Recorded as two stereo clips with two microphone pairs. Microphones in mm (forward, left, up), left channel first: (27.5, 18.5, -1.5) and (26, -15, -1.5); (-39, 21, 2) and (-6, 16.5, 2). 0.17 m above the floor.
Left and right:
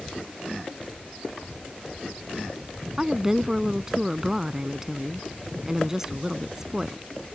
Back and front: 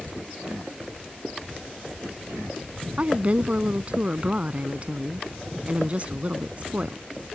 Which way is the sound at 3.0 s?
25° right.